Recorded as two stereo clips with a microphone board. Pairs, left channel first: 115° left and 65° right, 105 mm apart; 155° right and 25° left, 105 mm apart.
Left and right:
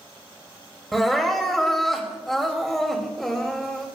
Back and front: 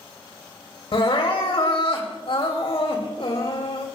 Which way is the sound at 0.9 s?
160° right.